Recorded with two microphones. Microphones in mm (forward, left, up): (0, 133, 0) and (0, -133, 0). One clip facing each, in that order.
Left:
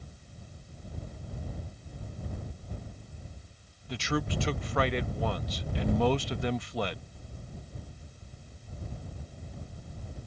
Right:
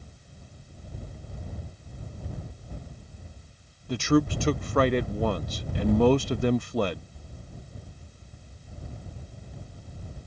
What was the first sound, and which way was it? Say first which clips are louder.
A man speaking: right 10 dB; 50° right (ahead or behind).